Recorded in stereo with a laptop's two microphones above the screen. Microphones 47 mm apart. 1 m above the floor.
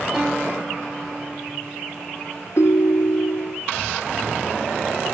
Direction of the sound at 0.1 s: 5° right (ahead or behind).